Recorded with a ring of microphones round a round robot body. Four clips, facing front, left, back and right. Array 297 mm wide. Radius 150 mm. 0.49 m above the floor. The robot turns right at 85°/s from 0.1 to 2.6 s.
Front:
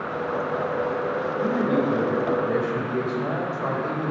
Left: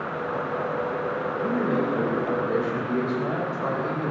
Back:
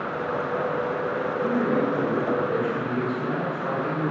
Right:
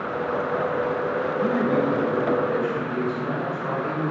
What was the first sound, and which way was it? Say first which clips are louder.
A man speaking: right 3 dB, front 1 dB; 75° right.